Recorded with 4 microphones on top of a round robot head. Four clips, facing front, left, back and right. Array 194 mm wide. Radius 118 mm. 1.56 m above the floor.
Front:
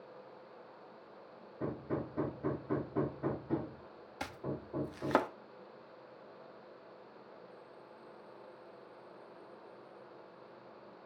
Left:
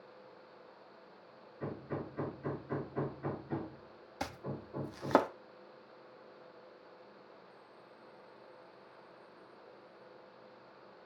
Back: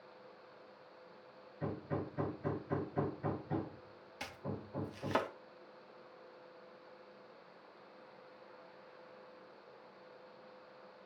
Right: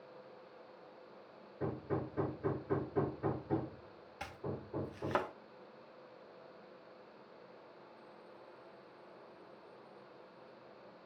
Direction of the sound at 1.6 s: 25° right.